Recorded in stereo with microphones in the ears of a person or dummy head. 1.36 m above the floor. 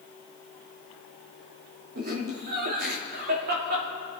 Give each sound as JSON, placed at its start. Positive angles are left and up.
{"t": 1.9, "sound": "laughter", "side_deg": -50, "distance_m": 3.0}